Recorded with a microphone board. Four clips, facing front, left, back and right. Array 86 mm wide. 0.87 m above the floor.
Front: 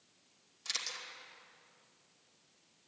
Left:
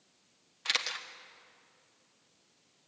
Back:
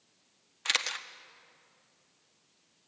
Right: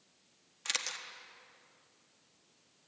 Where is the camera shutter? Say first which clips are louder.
Left 5 dB, back 11 dB; 165° left, 1.1 m.